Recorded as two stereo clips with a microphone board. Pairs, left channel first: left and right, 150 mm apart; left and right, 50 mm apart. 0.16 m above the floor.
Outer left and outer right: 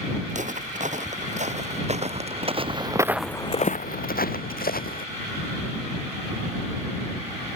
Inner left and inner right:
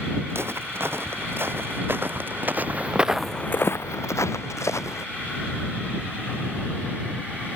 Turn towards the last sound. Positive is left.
turn(degrees=75)  # may be behind; listen again after turning